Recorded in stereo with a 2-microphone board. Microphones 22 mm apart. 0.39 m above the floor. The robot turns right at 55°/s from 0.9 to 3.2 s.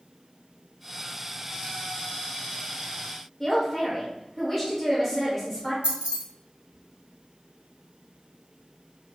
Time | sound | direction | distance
3.4 | a man speaking | 10° left (ahead or behind) | 1.3 m
5.8 | keys jangling | 60° right (ahead or behind) | 1.3 m